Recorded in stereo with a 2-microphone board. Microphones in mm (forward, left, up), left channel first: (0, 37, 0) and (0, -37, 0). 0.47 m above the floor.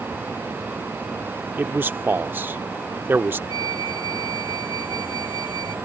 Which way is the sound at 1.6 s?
25° right (ahead or behind).